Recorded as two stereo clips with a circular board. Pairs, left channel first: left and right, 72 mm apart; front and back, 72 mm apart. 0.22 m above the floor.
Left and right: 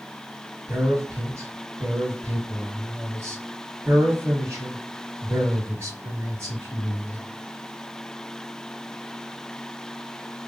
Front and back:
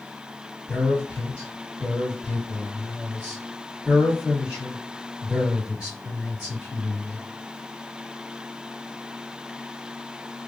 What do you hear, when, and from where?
0.7 s a man speaking: 90° right, 1.4 m